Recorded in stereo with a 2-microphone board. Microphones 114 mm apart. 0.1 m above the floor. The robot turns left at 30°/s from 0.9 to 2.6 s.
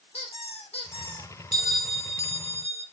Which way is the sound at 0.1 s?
60° left (ahead or behind).